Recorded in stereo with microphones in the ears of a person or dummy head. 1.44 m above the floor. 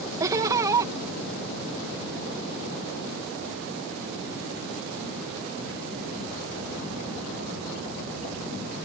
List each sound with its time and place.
0.2 s laughter: 20° right (ahead or behind)